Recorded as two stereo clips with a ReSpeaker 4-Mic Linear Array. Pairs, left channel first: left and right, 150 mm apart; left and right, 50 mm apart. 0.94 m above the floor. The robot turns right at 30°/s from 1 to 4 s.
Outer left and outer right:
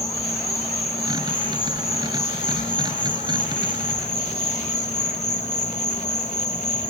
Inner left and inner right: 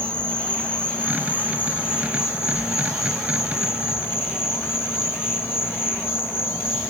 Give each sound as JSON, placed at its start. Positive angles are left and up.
{"t": 0.0, "sound": "an insect", "azimuth_deg": 25, "distance_m": 1.1}